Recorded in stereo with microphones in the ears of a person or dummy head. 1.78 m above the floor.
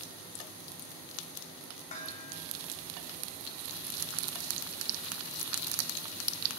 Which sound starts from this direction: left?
Dishes clattering, at 1.9 s.